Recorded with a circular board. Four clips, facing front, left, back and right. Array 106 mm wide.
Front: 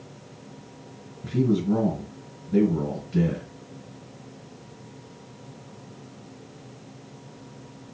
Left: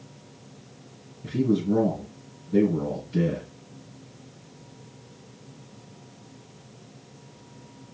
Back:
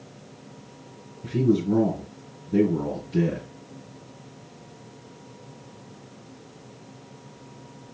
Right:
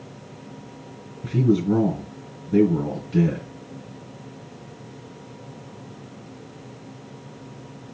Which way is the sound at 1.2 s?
85° right.